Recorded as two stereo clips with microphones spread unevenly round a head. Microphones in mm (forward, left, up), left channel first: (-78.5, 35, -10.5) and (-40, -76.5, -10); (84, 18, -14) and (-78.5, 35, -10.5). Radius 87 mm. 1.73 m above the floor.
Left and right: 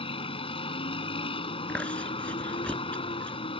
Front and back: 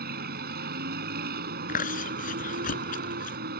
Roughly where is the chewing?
Ahead left.